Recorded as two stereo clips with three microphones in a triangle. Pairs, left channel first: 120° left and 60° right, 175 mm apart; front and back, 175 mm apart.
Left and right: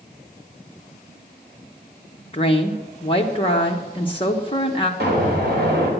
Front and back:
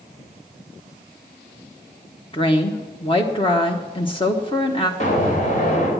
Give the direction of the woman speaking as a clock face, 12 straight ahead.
10 o'clock.